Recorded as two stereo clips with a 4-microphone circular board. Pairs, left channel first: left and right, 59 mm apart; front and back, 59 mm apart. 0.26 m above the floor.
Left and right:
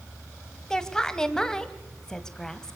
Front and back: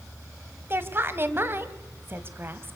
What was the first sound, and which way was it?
A woman speaking, 160° left.